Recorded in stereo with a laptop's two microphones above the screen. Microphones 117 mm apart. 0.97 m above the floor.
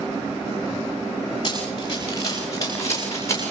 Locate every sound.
1.4 s running footsteps: 35° left (ahead or behind), 10 m; by 3.5 s 25° left (ahead or behind), 8.5 m